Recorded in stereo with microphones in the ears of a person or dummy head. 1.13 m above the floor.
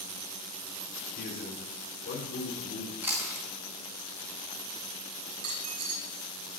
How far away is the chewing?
About 1.8 m.